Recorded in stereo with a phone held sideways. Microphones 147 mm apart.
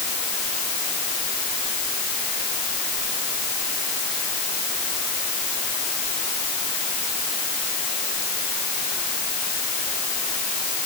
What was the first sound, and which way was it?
Only background noise.